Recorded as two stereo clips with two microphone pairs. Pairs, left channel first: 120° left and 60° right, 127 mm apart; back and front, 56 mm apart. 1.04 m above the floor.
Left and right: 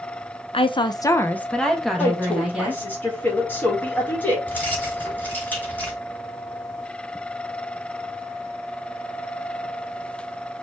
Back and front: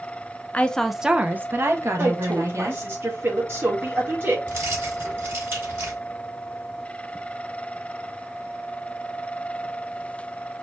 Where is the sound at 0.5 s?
125° left, 0.6 m; by 2.8 s 20° left, 1.7 m.